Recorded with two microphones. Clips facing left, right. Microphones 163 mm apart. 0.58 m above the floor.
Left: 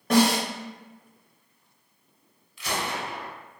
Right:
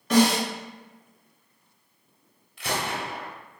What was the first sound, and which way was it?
A snare drum, 50° left (ahead or behind).